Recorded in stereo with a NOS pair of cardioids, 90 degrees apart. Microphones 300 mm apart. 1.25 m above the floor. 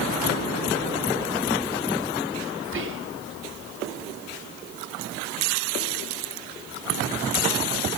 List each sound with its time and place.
2.6 s whispering: 40° right, 3 m